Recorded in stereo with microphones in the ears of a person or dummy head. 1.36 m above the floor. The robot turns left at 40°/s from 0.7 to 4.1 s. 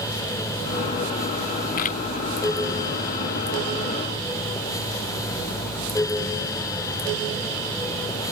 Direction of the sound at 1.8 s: 40° left (ahead or behind).